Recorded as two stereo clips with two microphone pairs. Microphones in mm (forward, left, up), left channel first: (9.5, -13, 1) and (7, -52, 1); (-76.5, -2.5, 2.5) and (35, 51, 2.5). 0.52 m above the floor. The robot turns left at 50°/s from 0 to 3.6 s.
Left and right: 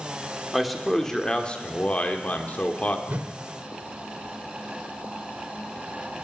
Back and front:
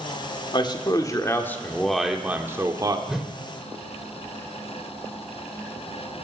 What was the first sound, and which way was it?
A man speaking, 175° right.